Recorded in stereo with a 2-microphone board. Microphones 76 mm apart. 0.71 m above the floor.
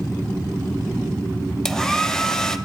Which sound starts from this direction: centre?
A hair dryer, at 1.6 s.